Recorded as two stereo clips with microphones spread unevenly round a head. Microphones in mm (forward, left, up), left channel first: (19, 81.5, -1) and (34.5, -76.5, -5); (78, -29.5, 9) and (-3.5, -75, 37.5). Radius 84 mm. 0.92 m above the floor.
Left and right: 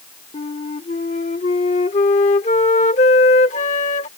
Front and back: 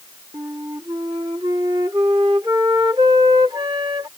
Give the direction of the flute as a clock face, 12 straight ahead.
7 o'clock.